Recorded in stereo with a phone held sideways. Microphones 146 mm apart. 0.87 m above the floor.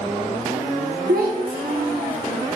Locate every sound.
1.1 s a child speaking: 80° right, 0.8 m; by 2.5 s 70° right (ahead or behind), 2.5 m